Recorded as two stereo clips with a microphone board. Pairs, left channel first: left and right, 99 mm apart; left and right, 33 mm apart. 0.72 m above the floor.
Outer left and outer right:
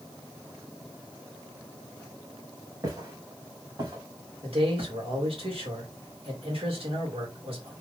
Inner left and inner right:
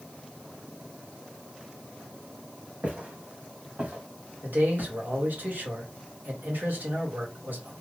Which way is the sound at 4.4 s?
75° right (ahead or behind).